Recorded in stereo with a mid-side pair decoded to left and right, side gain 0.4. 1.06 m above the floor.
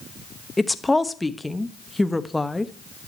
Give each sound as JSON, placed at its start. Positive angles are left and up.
{"t": 0.6, "sound": "a woman speaking", "azimuth_deg": 10, "distance_m": 1.1}